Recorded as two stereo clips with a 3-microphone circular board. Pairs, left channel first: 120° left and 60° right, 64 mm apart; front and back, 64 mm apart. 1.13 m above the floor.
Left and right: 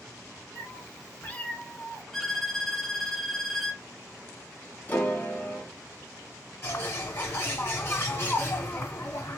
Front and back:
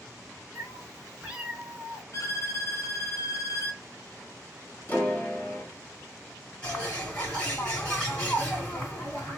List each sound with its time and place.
0.6 s a cat meowing: 95° left, 1.0 m; by 2.0 s 155° right, 0.9 m
2.1 s a violin: 35° left, 0.6 m
4.9 s a piano: 60° left, 1.5 m
6.6 s a bird: 75° left, 1.5 m